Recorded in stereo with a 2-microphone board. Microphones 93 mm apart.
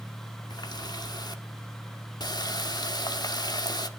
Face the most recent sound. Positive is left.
turn(degrees=50)  # may be behind; listen again after turning